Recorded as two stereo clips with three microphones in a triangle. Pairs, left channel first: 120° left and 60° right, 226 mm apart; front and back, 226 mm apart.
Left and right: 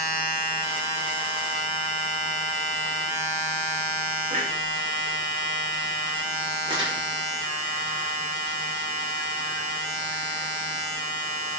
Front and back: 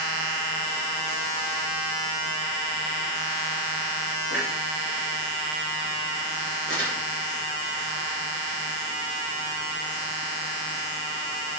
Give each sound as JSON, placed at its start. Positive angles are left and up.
{"t": 4.3, "sound": "a clunk", "azimuth_deg": -5, "distance_m": 4.5}
{"t": 6.7, "sound": "crumpling", "azimuth_deg": 5, "distance_m": 5.0}